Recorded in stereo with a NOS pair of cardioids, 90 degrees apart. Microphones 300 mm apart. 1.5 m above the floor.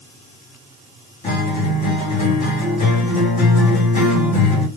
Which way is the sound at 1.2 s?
25° left.